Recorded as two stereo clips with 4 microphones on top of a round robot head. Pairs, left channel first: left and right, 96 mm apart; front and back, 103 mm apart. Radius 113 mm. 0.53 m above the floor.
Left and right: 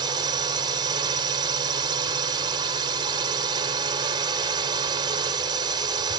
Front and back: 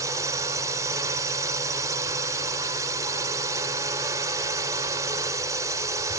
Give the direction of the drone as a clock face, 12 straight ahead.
4 o'clock.